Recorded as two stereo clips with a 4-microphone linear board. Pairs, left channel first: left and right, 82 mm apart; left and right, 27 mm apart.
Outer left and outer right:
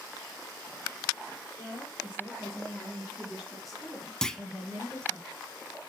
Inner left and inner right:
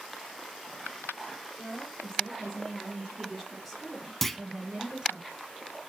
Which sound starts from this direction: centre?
A clunk, at 4.2 s.